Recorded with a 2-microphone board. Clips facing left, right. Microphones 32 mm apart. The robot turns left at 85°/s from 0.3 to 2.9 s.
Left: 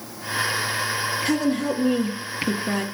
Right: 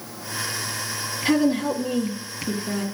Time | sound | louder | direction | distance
1.2 | a woman speaking | right 4 dB | 155° right | 1.3 m